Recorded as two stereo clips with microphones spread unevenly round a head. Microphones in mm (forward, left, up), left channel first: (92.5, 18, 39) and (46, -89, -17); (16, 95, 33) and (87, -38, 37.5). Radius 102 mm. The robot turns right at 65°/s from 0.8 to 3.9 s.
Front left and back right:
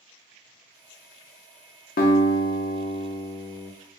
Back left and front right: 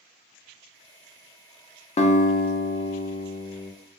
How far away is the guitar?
About 0.5 m.